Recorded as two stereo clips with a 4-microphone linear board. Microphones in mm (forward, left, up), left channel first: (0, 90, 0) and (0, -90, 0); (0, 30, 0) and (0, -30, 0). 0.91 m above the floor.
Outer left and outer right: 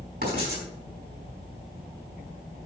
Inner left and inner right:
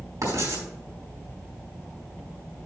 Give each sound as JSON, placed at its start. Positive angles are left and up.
{"t": 0.2, "sound": "writing", "side_deg": -70, "distance_m": 4.0}